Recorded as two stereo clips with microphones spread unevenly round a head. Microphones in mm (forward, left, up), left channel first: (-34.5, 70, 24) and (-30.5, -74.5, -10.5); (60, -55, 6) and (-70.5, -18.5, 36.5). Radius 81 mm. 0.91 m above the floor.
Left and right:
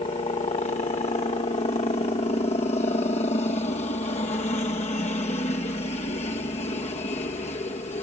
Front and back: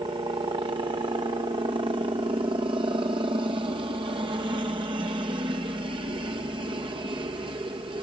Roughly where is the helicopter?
Behind left.